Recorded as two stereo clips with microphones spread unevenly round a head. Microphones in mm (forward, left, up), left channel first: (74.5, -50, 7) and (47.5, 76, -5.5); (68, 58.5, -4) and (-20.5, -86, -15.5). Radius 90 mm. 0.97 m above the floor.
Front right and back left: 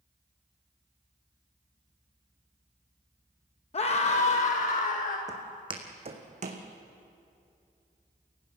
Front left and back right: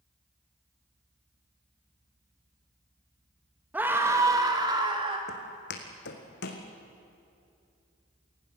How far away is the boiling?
No boiling in this recording.